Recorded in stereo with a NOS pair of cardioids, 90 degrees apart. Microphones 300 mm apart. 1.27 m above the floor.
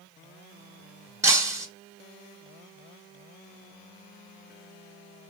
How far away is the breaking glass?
About 1.3 m.